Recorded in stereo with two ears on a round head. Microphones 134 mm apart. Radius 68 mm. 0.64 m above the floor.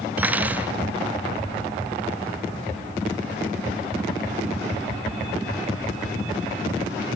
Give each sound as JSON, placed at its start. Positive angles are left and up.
{"t": 0.2, "sound": "cutlery clinking", "side_deg": -10, "distance_m": 1.3}